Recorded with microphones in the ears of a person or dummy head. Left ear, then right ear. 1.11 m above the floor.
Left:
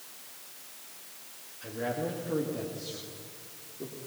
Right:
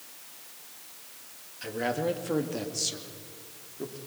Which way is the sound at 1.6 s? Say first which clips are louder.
Right 4 dB; 75° right (ahead or behind).